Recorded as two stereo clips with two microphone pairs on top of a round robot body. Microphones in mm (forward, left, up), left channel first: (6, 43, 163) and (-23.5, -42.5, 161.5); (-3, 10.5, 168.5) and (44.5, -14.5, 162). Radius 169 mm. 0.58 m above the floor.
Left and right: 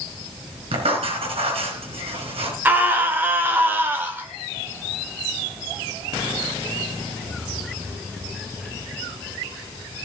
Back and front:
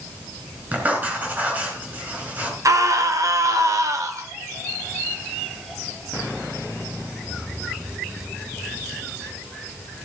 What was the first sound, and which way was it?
Writing, 90° right.